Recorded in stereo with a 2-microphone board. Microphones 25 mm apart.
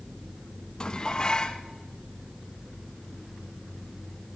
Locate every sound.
0.8 s dishes clattering: 25° left (ahead or behind), 1.3 m